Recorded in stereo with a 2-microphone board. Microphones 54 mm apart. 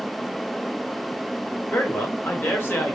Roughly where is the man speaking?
Left.